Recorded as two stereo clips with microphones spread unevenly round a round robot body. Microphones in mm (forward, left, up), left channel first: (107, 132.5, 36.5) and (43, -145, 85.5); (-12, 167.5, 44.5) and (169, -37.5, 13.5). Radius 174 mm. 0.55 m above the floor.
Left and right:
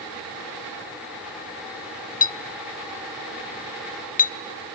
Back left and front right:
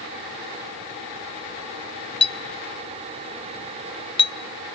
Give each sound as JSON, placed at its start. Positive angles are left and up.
{"t": 2.2, "sound": "a clink", "azimuth_deg": 60, "distance_m": 0.7}